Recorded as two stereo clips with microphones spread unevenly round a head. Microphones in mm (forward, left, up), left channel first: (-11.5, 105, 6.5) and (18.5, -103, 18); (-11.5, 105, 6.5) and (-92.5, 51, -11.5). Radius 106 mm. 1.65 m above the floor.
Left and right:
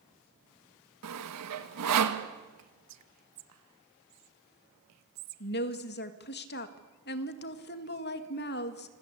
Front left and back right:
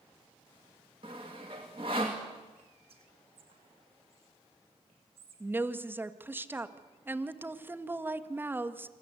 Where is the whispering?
85° right, 1.8 m.